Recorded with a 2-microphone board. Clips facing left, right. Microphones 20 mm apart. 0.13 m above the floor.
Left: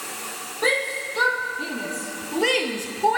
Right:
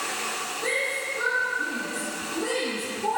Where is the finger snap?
No finger snap in this recording.